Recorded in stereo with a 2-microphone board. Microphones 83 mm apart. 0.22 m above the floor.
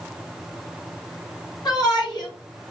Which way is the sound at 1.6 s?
60° left (ahead or behind).